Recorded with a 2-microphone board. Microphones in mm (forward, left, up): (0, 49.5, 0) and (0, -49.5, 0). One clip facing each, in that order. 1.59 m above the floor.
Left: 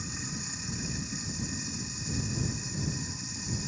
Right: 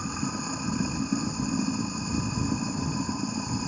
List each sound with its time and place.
0.0 s running water: 55° right (ahead or behind)